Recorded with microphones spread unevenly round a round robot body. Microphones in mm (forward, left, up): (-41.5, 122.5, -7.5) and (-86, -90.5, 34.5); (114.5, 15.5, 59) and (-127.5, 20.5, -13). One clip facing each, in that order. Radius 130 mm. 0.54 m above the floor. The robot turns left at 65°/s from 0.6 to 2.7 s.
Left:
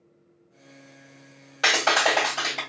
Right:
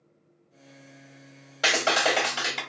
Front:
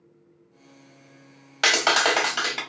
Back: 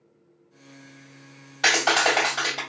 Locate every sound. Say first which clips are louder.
1.6 s a clap: even, even; 5° right, 1.4 m; by 2.6 s 65° right, 1.4 m